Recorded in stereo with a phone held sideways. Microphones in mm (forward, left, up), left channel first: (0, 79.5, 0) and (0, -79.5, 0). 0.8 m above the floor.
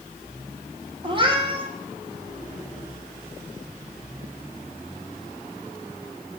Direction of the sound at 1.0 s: 30° right (ahead or behind).